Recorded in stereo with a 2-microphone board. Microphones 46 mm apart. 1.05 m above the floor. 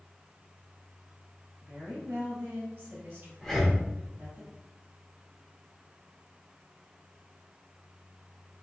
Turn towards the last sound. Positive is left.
turn(degrees=0)  # may be behind; listen again after turning